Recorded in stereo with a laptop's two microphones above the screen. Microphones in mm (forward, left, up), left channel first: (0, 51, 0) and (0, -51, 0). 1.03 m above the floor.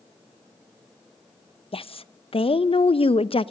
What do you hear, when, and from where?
1.7 s a woman speaking: 65° left (ahead or behind), 0.6 m